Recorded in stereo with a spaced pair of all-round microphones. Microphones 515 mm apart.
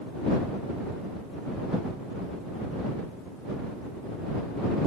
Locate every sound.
Only background noise.